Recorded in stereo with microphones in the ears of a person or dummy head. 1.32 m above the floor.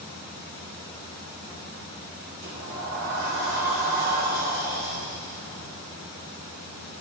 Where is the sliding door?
60° right (ahead or behind), 1.5 m.